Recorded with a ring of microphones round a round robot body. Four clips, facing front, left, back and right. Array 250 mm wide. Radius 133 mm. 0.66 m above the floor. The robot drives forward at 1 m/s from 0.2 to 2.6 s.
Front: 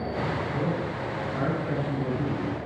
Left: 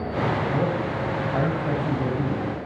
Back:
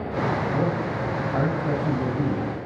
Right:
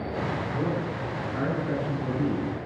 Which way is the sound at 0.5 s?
125° left.